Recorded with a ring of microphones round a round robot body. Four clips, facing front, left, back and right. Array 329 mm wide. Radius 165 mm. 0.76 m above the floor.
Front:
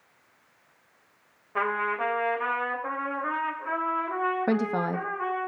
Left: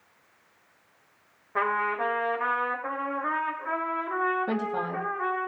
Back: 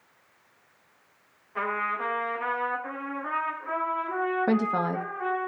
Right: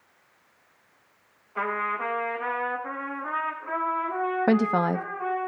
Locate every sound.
1.6 s a trumpet: 55° left, 2.5 m
4.5 s a woman speaking: 90° right, 0.9 m